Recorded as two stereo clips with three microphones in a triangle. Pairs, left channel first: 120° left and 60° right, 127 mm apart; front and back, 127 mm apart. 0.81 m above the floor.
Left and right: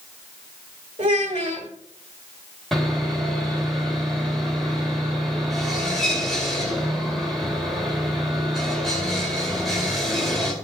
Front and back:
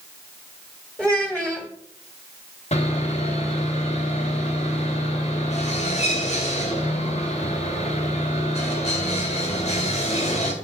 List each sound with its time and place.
1.0 s a child speaking: 100° right, 1.7 m
2.7 s sawing: 30° left, 2 m